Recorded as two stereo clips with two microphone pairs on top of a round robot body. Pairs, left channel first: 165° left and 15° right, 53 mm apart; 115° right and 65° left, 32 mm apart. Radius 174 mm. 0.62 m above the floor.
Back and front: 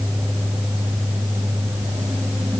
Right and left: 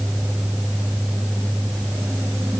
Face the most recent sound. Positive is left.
No sound to turn to.